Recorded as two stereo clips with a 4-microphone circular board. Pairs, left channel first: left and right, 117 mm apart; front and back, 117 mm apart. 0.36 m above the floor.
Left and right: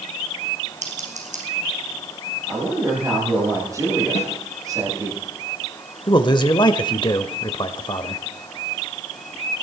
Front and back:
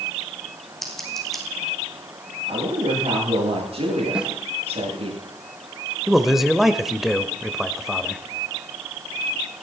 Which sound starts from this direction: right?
Scissors, at 0.8 s.